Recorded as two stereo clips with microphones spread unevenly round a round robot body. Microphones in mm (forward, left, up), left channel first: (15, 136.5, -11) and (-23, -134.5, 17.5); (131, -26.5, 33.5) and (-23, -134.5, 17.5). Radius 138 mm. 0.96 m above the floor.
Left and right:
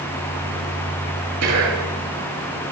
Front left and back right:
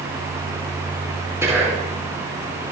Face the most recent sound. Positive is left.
turn(degrees=-70)